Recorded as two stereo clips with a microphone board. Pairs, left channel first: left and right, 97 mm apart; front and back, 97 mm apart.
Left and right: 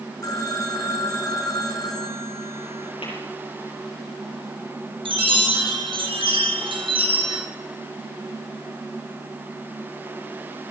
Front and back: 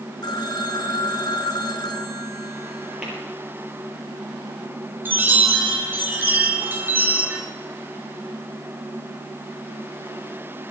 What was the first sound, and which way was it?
A phone ringing, 40° left.